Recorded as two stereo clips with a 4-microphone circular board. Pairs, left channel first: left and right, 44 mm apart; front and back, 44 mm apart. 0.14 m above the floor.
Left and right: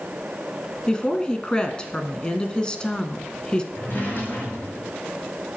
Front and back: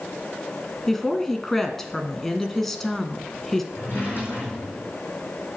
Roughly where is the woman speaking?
Left.